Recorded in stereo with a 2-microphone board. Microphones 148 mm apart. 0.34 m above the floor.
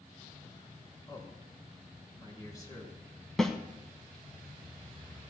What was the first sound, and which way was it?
A man speaking, 25° left (ahead or behind).